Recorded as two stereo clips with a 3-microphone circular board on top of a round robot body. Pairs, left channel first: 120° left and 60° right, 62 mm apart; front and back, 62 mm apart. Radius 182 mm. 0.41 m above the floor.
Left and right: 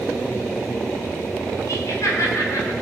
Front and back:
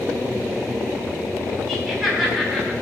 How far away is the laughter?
About 5 m.